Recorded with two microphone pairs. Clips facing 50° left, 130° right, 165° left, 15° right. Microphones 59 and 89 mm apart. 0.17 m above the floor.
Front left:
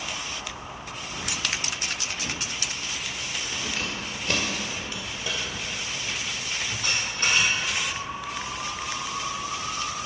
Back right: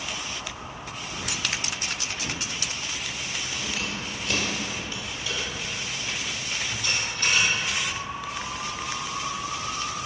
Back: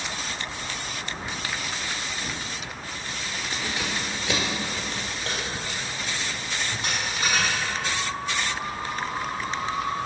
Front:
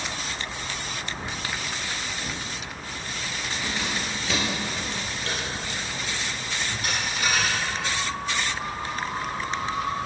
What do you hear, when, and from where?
3.5 s keys jangling: 90° left, 1.9 m; by 7.6 s 100° left, 4.5 m